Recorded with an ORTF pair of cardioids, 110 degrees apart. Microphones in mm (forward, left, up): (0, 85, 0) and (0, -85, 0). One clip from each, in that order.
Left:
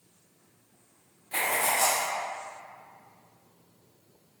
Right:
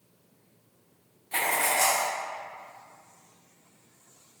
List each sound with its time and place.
1.3 s writing: straight ahead, 0.9 m